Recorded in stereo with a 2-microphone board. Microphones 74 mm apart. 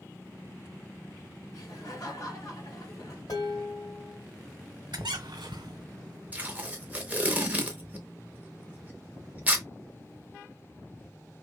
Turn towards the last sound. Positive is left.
turn(degrees=-20)  # may be behind; listen again after turning